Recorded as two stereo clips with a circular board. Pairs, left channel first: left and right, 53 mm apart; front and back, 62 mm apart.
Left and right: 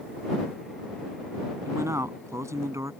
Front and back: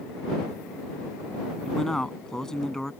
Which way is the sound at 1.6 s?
80° right.